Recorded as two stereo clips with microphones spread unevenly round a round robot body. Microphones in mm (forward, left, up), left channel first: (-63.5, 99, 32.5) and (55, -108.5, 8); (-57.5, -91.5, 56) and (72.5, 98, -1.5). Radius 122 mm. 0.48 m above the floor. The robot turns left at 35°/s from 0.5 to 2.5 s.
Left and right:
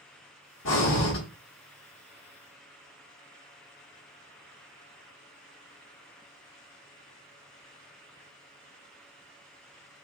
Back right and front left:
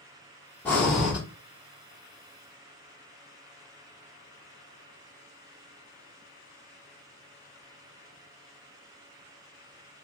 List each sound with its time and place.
0.7 s breathing: 145° left, 1.2 m; by 1.2 s 125° left, 1.2 m